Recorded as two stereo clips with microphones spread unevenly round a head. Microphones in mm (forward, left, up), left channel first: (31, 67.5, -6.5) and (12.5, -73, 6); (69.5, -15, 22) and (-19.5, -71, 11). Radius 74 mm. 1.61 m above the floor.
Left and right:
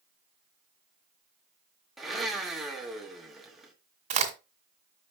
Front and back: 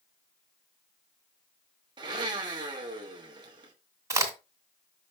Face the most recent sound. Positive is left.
turn(degrees=-90)